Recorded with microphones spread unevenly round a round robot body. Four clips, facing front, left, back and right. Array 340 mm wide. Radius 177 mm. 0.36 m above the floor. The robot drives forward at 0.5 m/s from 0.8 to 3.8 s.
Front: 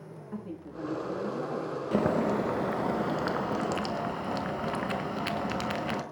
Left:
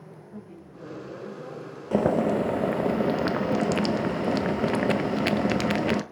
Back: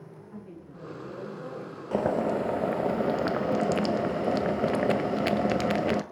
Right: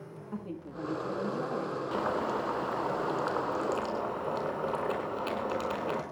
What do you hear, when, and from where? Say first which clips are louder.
0.3 s a woman speaking: right 6 dB, front 7 dB; 45° right, 7 m
1.9 s boiling: left 10 dB, back 1 dB; 60° left, 1.7 m; by 6.0 s 95° left, 1.5 m